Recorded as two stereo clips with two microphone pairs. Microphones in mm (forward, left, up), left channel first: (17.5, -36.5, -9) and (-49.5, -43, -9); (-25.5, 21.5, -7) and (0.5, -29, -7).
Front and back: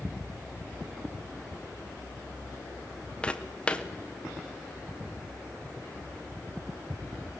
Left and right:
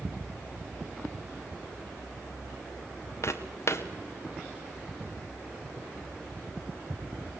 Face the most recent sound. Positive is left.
turn(degrees=80)